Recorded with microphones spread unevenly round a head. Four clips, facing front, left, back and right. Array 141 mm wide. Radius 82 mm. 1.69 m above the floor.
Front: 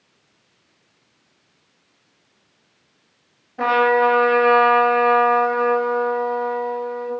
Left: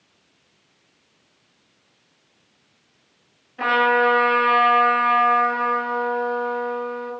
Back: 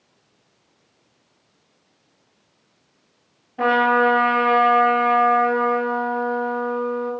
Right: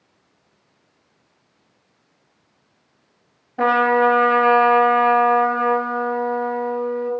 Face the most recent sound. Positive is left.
turn(degrees=-100)